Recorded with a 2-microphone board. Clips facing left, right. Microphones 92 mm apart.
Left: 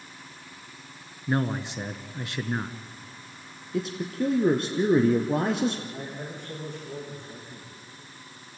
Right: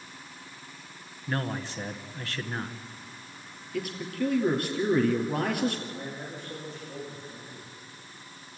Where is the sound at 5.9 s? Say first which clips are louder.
Left 1 dB; 60° left (ahead or behind), 8.5 m.